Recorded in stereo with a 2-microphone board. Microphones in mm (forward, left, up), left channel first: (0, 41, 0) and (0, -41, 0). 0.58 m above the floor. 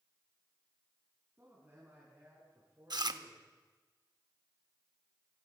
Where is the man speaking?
25° right (ahead or behind), 4 m; by 3.5 s 30° right (ahead or behind), 7.5 m.